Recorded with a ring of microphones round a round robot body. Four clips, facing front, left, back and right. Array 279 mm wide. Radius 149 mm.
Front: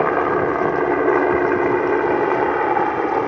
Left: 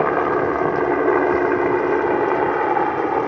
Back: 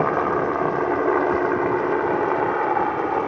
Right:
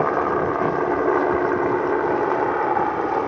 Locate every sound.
0.0 s a helicopter: 35° left